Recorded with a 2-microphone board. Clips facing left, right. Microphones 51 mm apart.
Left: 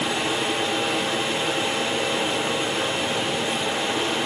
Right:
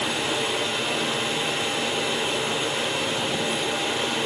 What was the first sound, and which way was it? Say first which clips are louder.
Running water: left 1 dB; 45° left (ahead or behind).